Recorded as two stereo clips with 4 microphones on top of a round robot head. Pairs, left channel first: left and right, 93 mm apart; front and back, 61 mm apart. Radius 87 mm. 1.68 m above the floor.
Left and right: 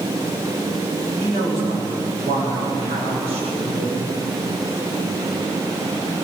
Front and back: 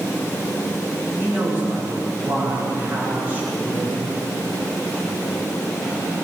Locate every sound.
1.2 s a man speaking: 110° right, 9 m